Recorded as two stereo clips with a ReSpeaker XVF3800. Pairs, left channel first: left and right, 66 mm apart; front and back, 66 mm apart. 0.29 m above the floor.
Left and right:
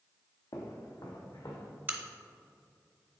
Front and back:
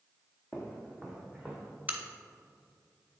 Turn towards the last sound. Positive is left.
turn(degrees=-130)